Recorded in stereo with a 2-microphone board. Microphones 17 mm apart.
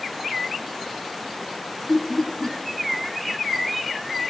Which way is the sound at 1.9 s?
25° left (ahead or behind).